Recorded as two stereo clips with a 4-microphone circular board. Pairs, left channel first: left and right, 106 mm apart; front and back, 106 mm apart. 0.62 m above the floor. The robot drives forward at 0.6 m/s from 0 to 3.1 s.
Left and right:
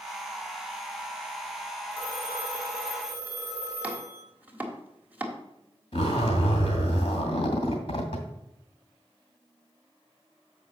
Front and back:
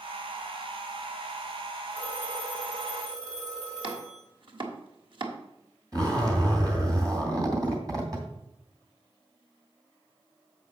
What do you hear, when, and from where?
1.9 s a phone ringing: 165° right, 3 m; by 4.2 s 170° right, 4 m
3.8 s chopping: 165° right, 1.3 m
5.9 s a zipper: 125° left, 2.5 m